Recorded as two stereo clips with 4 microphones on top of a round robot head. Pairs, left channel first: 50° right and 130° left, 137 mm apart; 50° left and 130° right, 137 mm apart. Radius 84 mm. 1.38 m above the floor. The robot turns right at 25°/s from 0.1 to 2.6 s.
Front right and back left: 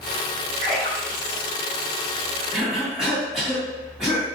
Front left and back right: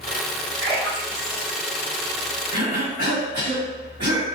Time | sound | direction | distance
0.6 | a splash | 170° right | 1.4 m
2.5 | a cough | 145° right | 1.7 m